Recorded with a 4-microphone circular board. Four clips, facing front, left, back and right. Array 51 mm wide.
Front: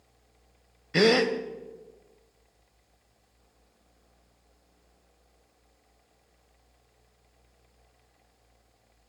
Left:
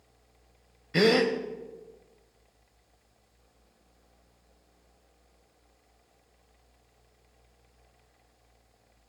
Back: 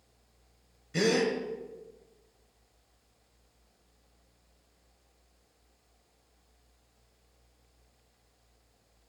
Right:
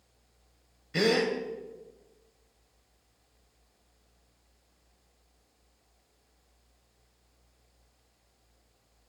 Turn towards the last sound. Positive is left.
turn(degrees=20)